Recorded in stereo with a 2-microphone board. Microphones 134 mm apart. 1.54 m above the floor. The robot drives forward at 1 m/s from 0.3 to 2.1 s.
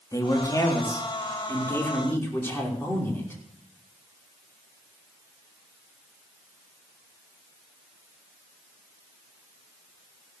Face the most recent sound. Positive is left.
turn(degrees=15)  # may be behind; listen again after turning